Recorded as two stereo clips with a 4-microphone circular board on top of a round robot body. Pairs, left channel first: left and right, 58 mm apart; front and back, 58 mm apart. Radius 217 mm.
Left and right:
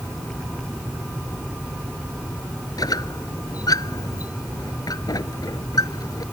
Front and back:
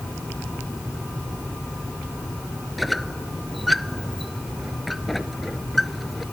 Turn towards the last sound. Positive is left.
turn(degrees=90)